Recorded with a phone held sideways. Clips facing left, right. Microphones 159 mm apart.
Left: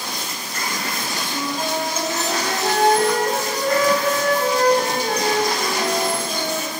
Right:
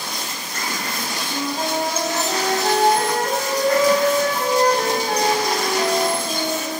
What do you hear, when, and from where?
1.3 s a flute: 35° right (ahead or behind), 1.4 m